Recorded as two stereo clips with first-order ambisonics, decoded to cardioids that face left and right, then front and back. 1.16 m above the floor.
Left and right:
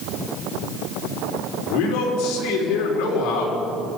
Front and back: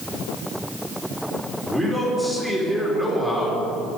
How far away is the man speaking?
About 4 m.